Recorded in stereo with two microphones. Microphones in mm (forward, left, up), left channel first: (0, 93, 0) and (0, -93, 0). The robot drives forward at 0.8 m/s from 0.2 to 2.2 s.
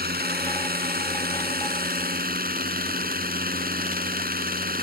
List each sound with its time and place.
0.0 s a drone: 55° right (ahead or behind)